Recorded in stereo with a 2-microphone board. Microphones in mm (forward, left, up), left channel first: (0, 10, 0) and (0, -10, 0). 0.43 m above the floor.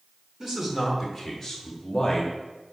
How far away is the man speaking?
About 1.6 m.